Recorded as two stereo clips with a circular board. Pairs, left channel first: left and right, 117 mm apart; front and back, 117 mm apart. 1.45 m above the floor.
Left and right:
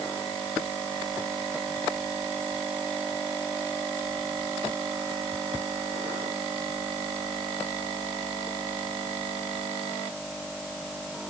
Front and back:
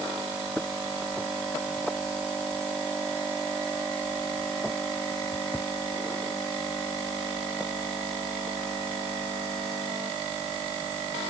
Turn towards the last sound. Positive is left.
No sound to turn to.